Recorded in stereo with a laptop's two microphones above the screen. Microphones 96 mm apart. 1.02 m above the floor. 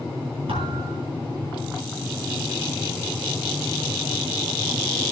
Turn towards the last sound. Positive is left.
turn(degrees=-80)